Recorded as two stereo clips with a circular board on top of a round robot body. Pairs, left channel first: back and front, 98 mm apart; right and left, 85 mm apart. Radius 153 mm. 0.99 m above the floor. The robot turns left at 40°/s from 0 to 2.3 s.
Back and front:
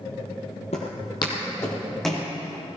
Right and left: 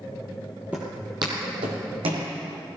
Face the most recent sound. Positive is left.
turn(degrees=85)